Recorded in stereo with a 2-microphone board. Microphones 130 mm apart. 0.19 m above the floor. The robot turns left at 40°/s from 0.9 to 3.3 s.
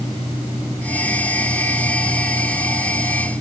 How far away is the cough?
No cough in this recording.